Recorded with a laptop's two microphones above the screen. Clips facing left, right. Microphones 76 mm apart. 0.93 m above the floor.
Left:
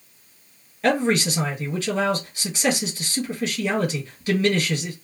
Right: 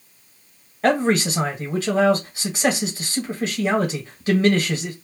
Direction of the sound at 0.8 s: 35° right (ahead or behind).